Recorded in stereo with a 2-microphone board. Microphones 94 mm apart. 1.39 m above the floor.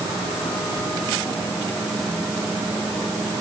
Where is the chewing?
I don't hear chewing.